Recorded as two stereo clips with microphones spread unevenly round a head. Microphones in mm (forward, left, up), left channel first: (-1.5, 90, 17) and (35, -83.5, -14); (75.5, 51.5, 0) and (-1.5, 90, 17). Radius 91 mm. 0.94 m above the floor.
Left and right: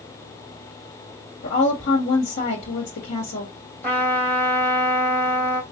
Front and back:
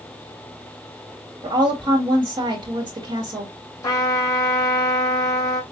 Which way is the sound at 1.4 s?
120° left.